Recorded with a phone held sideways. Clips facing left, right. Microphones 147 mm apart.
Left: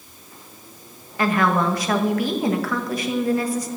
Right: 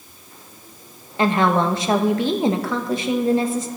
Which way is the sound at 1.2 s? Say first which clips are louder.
Right 2 dB; 25° right (ahead or behind).